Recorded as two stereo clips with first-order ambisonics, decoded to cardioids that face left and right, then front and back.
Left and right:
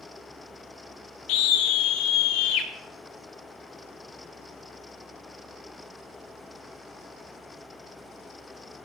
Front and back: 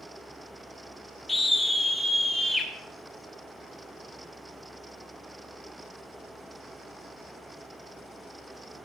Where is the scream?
80° left, 1.8 m; by 2.7 s 90° left, 3 m.